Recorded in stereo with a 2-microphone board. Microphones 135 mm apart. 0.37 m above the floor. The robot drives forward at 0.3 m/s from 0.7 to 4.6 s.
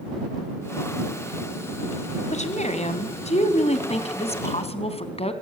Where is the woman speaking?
55° left (ahead or behind), 2.5 m; by 5.3 s 45° left (ahead or behind), 3 m.